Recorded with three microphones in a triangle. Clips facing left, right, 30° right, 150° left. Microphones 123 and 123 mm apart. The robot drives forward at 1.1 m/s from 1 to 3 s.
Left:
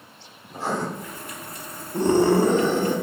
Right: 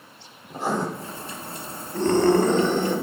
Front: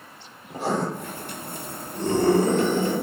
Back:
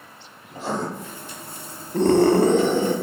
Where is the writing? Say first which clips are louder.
Right 1 dB, front 2 dB; 20° right, 3 m.